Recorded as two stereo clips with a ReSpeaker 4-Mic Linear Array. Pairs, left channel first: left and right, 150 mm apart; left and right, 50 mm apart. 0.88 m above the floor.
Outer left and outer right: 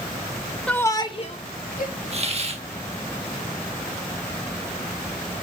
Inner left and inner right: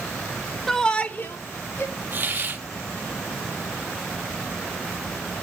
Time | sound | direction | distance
0.7 | a shout | 5° left (ahead or behind) | 1.4 m
2.1 | a hiss | 40° right (ahead or behind) | 1.0 m